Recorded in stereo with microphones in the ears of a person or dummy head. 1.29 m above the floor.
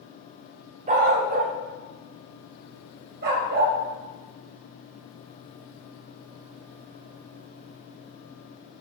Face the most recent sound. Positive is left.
turn(degrees=-55)  # may be behind; listen again after turning